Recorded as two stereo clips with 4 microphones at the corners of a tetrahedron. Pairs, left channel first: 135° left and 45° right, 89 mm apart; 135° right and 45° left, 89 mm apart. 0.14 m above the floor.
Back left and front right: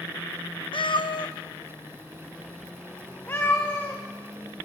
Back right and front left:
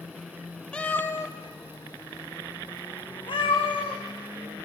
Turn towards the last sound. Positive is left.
turn(degrees=-155)